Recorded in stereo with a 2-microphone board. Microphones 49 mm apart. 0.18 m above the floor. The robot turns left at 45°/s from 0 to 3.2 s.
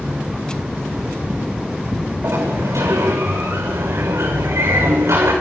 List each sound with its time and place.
2.2 s a sliding door: 65° right, 8.5 m; by 5.3 s 110° right, 8.5 m